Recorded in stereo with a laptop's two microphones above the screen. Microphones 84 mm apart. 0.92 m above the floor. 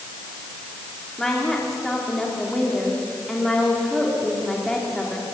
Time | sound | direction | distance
1.2 | a woman speaking | 5° left (ahead or behind) | 2.5 m